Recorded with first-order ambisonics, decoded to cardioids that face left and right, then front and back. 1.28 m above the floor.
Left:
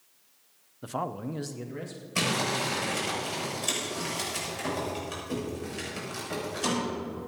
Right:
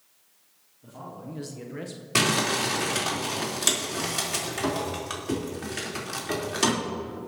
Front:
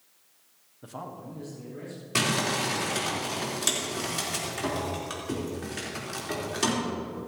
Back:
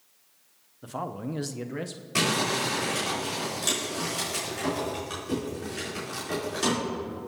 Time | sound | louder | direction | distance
0.8 | a man speaking | left 8 dB, back 6 dB | 95° left | 0.8 m
2.1 | crumpling | right 4 dB, back 1 dB | 75° right | 3.5 m